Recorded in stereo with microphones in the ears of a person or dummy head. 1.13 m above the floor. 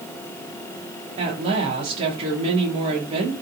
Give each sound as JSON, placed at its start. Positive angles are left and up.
{"t": 1.2, "sound": "a woman speaking", "side_deg": -30, "distance_m": 0.7}